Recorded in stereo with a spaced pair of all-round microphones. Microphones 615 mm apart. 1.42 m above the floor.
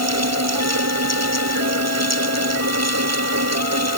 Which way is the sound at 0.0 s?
25° right (ahead or behind).